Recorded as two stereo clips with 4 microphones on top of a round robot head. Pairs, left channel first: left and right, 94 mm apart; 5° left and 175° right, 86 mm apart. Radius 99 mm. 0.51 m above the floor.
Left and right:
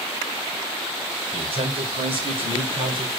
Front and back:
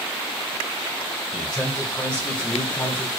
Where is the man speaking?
80° right, 4 m; by 3.1 s 65° right, 3.5 m.